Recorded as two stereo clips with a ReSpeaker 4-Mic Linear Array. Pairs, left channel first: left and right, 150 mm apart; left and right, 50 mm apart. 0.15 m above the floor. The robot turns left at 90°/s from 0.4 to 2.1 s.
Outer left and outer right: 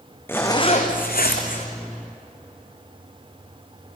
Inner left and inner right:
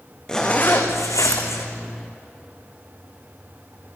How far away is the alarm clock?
I don't hear an alarm clock.